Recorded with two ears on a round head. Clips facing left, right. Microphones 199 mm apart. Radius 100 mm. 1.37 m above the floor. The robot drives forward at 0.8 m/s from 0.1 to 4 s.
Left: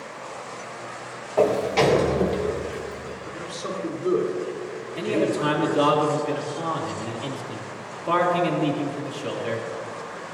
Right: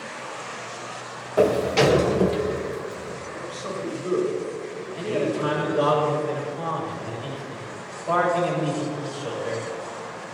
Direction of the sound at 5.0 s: 50° left (ahead or behind).